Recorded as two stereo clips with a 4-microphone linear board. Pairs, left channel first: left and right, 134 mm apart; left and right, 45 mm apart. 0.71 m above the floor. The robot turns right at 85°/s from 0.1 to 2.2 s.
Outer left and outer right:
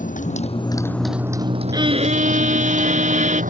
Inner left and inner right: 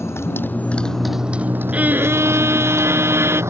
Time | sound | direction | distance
0.0 | a motorcycle | 100° left | ?
1.7 | a violin | 150° right | ?